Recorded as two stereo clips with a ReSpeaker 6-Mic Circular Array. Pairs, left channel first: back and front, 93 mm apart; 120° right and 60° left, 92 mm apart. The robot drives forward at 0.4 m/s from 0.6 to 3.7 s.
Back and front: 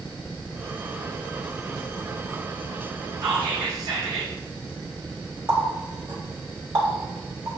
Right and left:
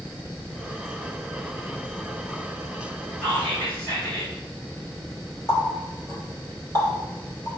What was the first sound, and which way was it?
Whispering, 45° right.